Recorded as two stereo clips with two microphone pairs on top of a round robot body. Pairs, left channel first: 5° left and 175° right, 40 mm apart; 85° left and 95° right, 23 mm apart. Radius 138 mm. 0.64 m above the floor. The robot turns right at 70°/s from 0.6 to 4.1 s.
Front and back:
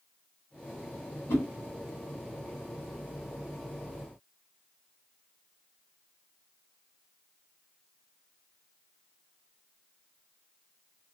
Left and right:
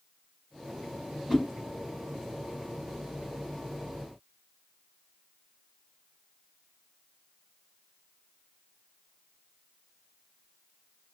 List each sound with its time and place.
1.3 s a whoosh: 20° right, 1.4 m; by 1.4 s 10° right, 1.4 m